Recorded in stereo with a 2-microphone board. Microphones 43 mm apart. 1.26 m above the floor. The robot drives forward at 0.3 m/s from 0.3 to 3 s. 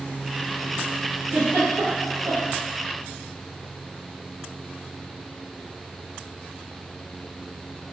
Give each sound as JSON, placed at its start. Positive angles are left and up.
{"t": 1.3, "sound": "a giggle", "side_deg": -50, "distance_m": 0.7}